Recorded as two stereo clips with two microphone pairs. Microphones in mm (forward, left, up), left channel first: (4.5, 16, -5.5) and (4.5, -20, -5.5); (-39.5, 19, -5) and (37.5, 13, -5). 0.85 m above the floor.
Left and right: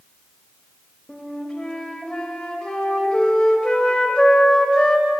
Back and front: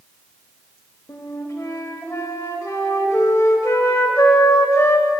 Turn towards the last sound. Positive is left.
turn(degrees=140)